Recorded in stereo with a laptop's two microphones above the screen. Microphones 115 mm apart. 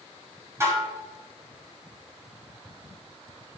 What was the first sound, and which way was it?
Dishes clattering, 25° right (ahead or behind).